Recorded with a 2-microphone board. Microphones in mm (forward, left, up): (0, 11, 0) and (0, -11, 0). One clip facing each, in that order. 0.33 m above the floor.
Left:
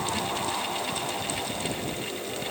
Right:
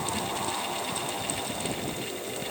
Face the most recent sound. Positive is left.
No sound to turn to.